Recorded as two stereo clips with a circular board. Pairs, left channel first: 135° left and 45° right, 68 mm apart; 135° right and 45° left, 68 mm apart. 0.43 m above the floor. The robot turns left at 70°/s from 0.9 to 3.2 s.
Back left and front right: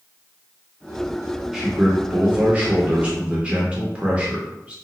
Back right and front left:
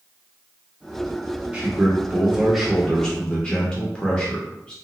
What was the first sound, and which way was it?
A man speaking, 35° left.